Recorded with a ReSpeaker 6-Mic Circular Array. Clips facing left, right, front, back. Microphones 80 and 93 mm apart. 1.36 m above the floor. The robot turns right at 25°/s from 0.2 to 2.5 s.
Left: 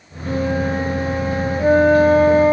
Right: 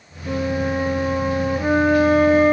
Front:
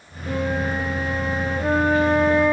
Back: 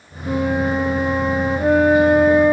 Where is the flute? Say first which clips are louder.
Left 2 dB, back 5 dB; 175° right, 2.5 m; by 2.5 s 120° right, 2.5 m.